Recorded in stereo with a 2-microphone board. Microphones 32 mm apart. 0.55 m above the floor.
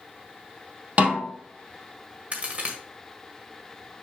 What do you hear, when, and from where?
1.0 s a snare drum: 35° right (ahead or behind), 2.5 m
2.3 s a crack: 45° right (ahead or behind), 1.5 m